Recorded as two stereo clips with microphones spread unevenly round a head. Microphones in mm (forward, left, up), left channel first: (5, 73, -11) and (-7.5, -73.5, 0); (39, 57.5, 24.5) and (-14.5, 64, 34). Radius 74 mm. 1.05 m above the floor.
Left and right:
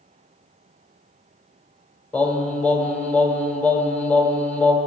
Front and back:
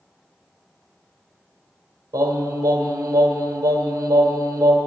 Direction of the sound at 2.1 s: 170° left.